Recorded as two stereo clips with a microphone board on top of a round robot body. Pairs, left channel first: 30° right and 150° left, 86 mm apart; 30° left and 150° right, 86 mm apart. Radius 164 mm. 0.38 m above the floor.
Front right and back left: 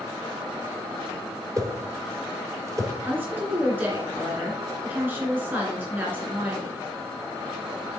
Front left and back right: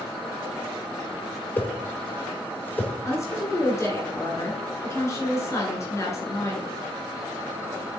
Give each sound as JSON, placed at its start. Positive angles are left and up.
{"t": 1.6, "sound": "a whoosh", "azimuth_deg": 100, "distance_m": 1.2}
{"t": 3.0, "sound": "a woman speaking", "azimuth_deg": 85, "distance_m": 2.0}